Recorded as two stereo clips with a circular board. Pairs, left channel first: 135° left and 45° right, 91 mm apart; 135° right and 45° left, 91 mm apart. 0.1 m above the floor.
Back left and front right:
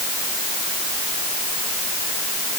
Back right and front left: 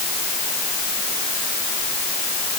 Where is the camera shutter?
I don't hear a camera shutter.